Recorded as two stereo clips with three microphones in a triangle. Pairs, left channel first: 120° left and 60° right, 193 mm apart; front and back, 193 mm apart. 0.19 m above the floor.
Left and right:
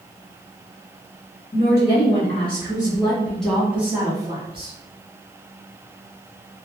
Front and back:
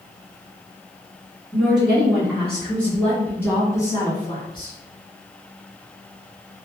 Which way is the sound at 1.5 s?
95° left.